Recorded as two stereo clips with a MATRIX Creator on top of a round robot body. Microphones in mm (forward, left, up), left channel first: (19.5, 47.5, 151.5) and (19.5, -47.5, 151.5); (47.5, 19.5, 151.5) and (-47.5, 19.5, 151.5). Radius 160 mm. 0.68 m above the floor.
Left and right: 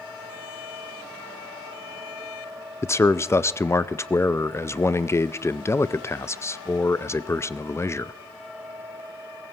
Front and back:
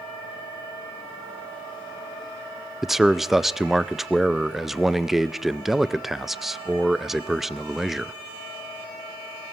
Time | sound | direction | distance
2.8 | a man speaking | 95° left | 0.6 m